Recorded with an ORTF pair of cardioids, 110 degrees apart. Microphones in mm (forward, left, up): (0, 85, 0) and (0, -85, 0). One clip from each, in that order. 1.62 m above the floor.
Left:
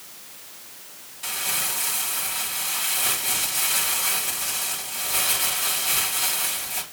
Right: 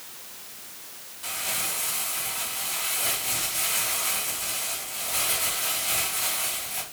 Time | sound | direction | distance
1.2 | crumpling | 30° left | 4.5 m